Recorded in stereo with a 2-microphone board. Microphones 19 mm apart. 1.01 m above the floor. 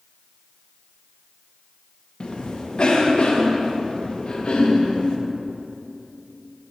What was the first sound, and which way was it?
A cough, 45° left (ahead or behind).